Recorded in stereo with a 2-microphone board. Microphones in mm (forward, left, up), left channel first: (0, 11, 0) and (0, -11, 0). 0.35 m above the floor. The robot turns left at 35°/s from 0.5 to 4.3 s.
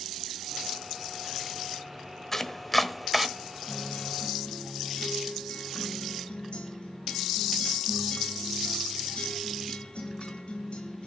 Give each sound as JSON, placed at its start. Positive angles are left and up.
{"t": 2.3, "sound": "chopping", "side_deg": 15, "distance_m": 0.9}
{"t": 3.7, "sound": "a guitar", "side_deg": 75, "distance_m": 5.5}